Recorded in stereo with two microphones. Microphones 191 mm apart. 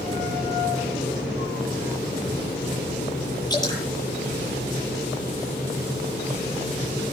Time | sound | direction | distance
3.5 | dripping | 20° left (ahead or behind) | 9 m